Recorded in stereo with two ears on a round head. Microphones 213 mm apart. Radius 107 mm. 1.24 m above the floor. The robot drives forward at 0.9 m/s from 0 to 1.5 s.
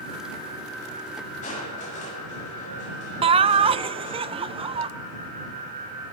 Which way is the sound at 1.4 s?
35° left (ahead or behind).